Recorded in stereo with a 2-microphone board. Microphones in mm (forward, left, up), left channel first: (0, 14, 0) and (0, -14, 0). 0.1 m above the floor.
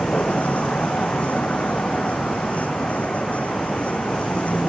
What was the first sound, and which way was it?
A vehicle, 55° left (ahead or behind).